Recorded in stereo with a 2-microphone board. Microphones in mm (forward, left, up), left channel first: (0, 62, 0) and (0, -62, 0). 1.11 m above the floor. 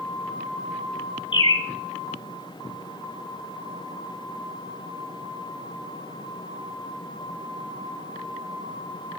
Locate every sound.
1.3 s a bird: 35° left (ahead or behind), 1.9 m